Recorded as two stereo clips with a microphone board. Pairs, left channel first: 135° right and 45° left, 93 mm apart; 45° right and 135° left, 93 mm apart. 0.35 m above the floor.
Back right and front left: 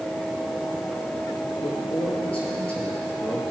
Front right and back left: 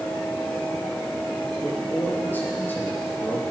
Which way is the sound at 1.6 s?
115° right.